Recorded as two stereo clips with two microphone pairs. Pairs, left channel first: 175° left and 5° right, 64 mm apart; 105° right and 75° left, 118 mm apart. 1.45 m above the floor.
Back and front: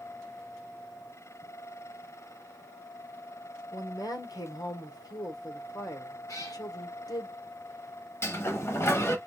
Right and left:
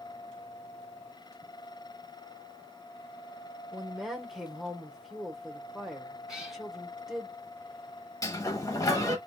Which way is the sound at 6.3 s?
160° left.